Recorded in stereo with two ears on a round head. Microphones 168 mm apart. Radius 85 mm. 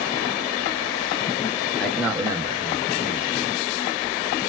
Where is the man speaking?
5° left (ahead or behind), 0.8 m; by 3.5 s 50° right (ahead or behind), 0.8 m.